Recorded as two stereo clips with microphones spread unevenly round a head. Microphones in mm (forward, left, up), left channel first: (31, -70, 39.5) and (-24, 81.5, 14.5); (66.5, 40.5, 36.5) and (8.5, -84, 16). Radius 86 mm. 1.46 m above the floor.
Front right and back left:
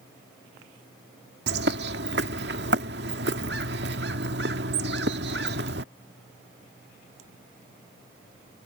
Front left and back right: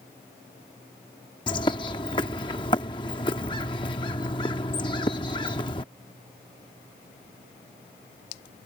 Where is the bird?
110° left.